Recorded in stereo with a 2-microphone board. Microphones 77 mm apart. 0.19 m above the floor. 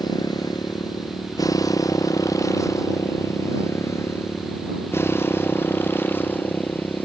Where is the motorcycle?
55° left (ahead or behind); by 7.0 s 25° left (ahead or behind).